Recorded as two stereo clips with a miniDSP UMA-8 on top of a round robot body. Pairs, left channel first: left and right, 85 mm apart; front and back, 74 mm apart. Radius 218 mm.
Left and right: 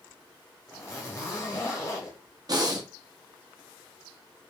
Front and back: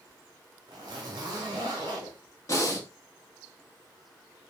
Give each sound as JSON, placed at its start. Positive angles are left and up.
{"t": 0.7, "sound": "a zipper", "azimuth_deg": 150, "distance_m": 0.7}
{"t": 2.5, "sound": "breathing", "azimuth_deg": -45, "distance_m": 1.2}